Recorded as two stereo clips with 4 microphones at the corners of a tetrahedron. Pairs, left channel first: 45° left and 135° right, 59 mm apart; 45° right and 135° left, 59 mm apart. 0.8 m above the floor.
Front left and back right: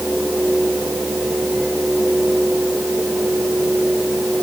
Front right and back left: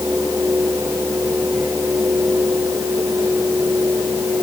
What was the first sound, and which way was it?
Only background noise.